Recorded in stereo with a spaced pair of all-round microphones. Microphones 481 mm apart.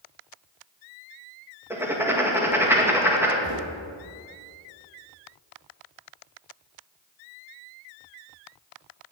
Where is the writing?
5° right (ahead or behind), 1.9 m.